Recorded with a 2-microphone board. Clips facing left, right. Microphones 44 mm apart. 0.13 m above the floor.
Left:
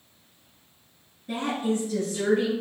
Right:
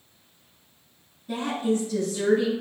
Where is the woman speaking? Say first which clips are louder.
Right 1 dB; 35° left (ahead or behind), 1.8 m.